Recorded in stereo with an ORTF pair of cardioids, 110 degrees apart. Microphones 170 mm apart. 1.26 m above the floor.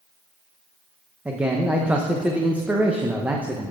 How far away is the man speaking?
About 0.9 m.